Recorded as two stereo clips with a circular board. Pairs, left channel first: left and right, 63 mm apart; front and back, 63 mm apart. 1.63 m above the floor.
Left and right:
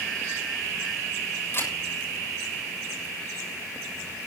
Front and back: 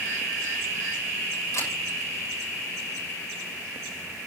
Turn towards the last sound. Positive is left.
turn(degrees=40)